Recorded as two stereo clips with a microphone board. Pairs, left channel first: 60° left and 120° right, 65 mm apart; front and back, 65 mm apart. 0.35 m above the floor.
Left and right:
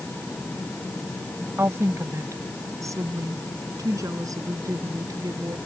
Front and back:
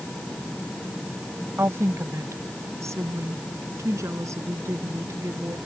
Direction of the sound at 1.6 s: 150° right.